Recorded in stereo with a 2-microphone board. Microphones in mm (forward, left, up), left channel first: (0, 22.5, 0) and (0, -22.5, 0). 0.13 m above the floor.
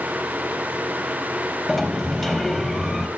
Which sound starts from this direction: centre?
A sliding door, at 1.7 s.